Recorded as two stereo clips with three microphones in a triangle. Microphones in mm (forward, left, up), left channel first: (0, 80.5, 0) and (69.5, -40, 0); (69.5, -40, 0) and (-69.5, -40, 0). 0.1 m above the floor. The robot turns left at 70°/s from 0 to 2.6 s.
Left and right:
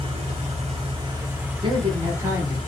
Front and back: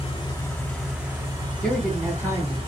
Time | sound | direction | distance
0.0 | an engine running | 25° right | 1.0 m
1.6 | a man speaking | 80° right | 1.4 m